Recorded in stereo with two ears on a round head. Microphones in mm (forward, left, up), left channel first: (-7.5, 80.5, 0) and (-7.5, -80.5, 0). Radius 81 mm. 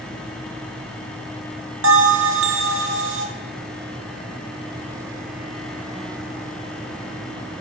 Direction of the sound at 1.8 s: 75° right (ahead or behind).